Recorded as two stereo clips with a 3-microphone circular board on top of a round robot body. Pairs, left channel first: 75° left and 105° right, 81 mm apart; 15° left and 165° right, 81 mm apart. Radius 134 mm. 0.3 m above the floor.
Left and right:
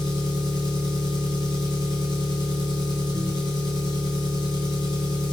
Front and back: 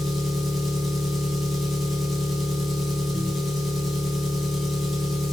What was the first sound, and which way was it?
An engine running, 105° left.